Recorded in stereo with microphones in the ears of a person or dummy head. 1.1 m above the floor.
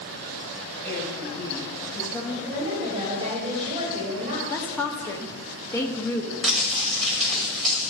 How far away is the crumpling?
About 5 m.